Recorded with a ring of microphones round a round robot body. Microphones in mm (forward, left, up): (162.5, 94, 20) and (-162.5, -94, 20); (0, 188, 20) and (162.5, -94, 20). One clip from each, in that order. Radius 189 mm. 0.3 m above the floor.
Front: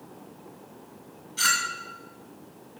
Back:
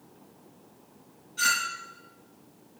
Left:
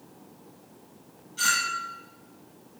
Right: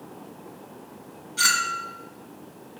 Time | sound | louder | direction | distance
1.4 | a clink | front 1 dB, right 3 dB | 25° right | 2.5 m